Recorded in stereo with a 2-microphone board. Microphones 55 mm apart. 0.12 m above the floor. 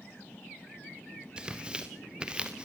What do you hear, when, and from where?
1.4 s tearing paper: 15° right (ahead or behind), 3 m